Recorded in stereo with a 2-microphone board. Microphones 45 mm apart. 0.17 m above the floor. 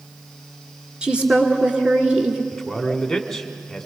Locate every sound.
1.0 s a woman speaking: 20° right (ahead or behind), 2 m
2.5 s a man speaking: 5° left (ahead or behind), 1.5 m